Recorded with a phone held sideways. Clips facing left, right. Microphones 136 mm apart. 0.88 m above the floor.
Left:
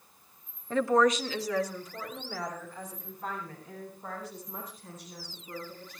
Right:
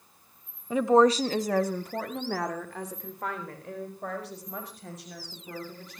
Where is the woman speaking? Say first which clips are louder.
Right 4 dB; 10° right (ahead or behind), 1.4 m; by 6.0 s 85° right, 8 m.